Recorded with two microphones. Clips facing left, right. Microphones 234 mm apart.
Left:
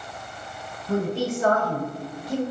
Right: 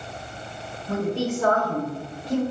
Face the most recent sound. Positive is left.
turn(degrees=40)  # may be behind; listen again after turning